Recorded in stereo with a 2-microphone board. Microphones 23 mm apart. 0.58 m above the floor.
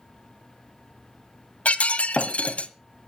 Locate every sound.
1.6 s breaking glass: 85° left, 1.3 m